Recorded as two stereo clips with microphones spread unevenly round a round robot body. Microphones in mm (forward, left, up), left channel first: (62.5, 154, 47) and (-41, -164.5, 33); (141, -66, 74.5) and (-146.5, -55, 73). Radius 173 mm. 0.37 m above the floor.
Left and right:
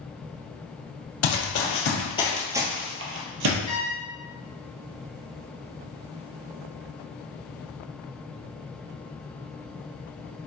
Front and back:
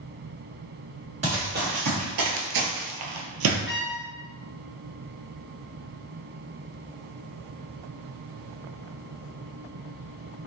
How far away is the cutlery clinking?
No cutlery clinking in this recording.